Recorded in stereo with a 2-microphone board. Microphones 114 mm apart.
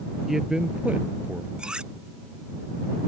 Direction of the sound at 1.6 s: 5° right (ahead or behind).